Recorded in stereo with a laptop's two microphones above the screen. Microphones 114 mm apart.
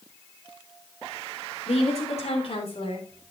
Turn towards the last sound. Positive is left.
turn(degrees=55)  # may be behind; listen again after turning